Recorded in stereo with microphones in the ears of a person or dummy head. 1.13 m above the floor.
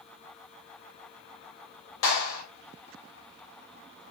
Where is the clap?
65° left (ahead or behind), 4 m.